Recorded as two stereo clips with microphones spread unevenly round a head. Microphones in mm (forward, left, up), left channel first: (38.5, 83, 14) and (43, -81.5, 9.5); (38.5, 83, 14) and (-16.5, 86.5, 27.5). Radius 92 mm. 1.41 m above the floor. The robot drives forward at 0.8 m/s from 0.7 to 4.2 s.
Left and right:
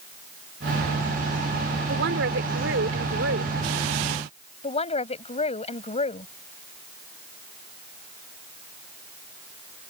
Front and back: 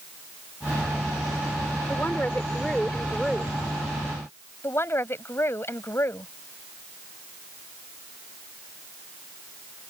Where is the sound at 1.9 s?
85° right; by 3.6 s 105° right.